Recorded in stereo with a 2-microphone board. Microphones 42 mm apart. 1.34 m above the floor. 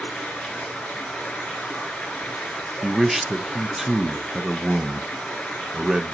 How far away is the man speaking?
About 0.5 m.